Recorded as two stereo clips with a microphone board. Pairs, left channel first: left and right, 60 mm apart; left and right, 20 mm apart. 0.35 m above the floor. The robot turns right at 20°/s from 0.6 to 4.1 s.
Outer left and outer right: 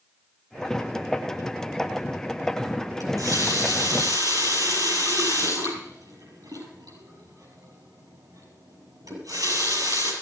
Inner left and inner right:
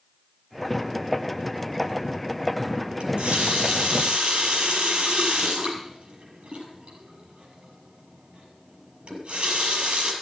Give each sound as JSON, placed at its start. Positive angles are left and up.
{"t": 3.0, "sound": "a running tap", "side_deg": -80, "distance_m": 6.0}